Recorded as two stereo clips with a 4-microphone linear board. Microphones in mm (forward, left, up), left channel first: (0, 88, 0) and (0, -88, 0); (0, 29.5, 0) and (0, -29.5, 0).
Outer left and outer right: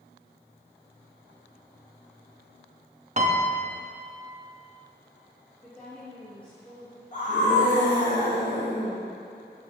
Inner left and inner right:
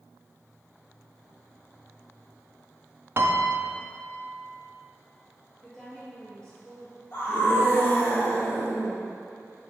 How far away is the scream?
About 1.8 m.